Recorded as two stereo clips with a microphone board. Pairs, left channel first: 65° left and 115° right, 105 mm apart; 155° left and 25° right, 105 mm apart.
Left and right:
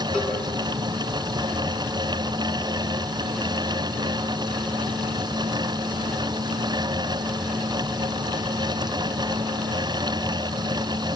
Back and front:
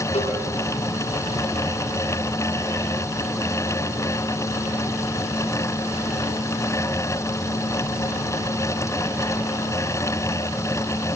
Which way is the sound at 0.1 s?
150° left.